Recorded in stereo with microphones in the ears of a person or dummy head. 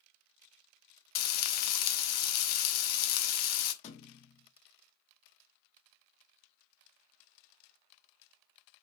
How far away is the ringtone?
I don't hear a ringtone.